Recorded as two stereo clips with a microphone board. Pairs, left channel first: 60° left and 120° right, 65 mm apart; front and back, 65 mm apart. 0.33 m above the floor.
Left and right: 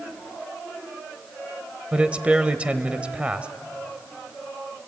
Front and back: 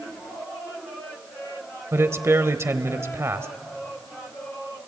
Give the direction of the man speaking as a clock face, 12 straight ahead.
6 o'clock.